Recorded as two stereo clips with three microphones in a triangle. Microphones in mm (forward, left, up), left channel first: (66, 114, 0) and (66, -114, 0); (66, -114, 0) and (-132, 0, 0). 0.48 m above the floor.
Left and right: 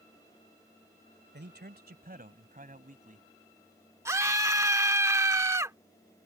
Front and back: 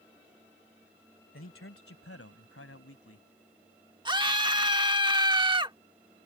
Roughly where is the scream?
Behind right.